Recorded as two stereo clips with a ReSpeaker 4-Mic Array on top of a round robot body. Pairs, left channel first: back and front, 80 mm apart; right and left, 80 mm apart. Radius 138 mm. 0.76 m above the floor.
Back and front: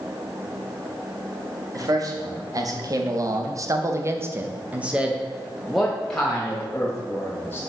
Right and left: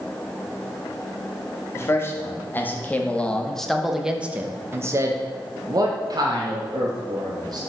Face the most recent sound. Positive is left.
turn(degrees=110)